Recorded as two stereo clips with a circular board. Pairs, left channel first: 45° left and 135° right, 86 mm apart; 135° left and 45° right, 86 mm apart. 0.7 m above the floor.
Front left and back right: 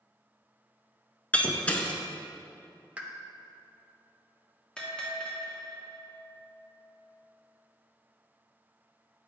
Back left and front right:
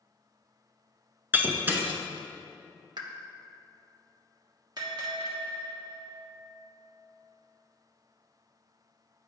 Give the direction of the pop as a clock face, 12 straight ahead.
2 o'clock.